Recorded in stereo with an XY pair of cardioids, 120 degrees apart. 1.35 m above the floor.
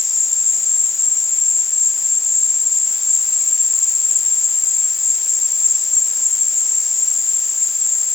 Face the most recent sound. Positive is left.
turn(degrees=20)